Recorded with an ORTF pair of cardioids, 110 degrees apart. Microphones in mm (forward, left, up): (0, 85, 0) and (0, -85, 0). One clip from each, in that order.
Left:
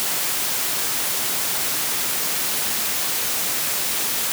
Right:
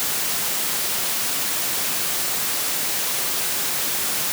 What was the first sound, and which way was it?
Only background noise.